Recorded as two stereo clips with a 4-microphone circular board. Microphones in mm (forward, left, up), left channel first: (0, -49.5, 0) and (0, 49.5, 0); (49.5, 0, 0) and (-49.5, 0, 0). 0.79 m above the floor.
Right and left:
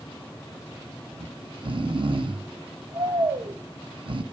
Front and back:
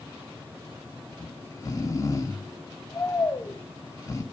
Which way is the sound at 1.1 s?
55° left.